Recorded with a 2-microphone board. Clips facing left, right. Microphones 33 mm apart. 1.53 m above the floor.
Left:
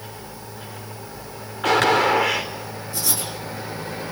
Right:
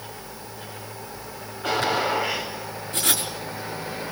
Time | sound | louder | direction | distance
1.6 | a gunshot | left 6 dB | 75° left (ahead or behind) | 4 m
2.9 | writing | right 3 dB | 50° right (ahead or behind) | 5 m